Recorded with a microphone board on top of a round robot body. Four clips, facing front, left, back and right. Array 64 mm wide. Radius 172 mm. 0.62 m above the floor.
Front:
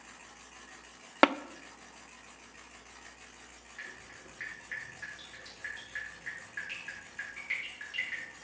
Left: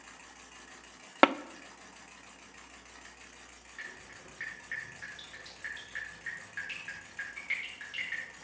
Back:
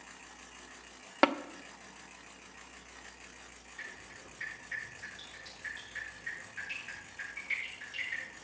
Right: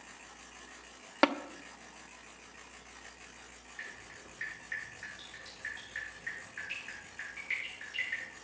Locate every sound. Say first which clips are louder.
1.2 s tapping: left 4 dB, front 3 dB; 50° left, 0.6 m
3.8 s dripping: left 1 dB, even; 55° left, 9 m